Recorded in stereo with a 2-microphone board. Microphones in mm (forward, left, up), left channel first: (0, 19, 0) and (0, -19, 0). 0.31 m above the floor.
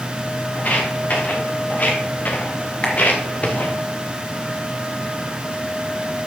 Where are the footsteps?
50° left (ahead or behind), 4 m; by 3.8 s 40° left (ahead or behind), 1.9 m.